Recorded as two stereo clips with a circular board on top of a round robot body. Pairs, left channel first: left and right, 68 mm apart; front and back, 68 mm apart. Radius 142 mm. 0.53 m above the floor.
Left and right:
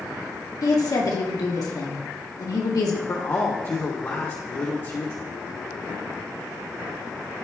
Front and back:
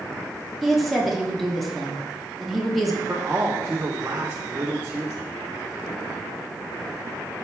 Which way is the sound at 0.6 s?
90° left.